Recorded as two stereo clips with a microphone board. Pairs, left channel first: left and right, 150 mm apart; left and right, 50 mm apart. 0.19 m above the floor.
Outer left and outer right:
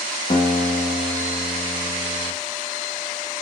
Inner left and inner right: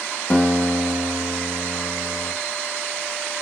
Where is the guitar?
40° left (ahead or behind), 0.8 m.